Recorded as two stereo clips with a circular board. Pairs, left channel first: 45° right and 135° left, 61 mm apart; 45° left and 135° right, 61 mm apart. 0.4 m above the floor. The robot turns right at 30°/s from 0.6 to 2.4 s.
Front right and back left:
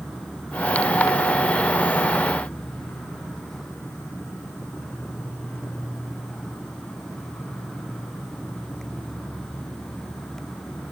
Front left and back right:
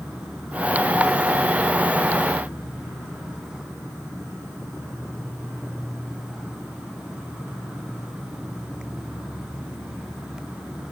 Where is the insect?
155° right, 2 m; by 10.9 s 105° right, 2 m.